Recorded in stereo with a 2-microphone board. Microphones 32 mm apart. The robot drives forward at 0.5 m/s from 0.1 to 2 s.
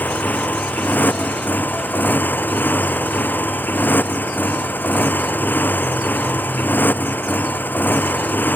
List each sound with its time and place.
0.0 s a motorcycle: 65° left (ahead or behind); by 8.6 s 80° left